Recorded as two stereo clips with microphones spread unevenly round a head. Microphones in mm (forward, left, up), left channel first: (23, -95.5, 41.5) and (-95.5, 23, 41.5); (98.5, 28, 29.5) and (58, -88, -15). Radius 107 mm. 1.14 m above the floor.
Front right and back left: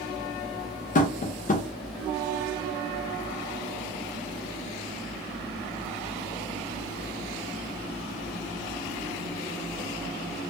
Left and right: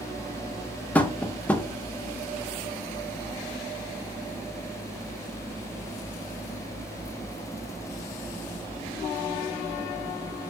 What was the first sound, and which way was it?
Tapping, 30° right.